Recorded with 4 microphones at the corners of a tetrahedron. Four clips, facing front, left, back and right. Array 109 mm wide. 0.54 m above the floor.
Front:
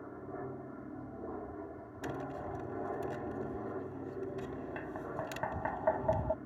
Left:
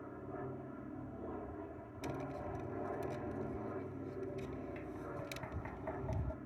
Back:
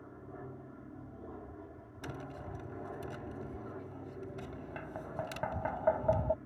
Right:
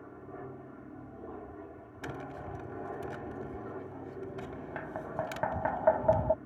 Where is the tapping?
95° right.